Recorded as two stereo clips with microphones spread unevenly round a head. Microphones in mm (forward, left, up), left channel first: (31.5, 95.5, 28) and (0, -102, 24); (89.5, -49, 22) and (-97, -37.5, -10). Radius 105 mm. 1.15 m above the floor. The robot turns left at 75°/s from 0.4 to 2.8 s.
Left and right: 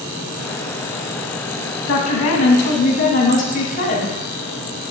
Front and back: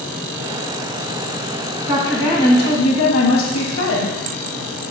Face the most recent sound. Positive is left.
turn(degrees=30)